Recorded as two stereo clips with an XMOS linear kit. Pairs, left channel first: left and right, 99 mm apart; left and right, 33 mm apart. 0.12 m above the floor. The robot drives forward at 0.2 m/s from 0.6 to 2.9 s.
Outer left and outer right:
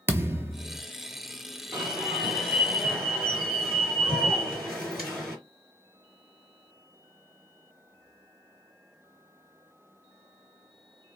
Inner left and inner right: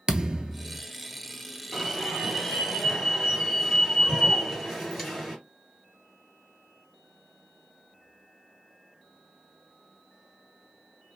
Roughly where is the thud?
Right.